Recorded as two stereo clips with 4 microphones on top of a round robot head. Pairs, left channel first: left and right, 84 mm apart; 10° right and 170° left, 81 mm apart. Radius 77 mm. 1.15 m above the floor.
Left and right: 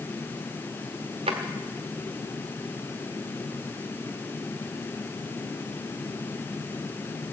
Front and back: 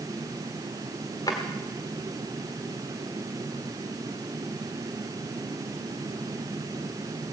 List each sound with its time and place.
1.3 s a drawer: 70° right, 1.4 m